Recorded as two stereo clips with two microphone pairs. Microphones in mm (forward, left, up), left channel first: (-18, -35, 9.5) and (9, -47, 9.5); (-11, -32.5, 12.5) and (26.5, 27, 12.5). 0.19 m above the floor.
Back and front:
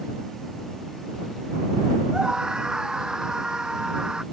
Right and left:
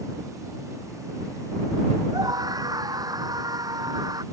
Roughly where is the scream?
Ahead left.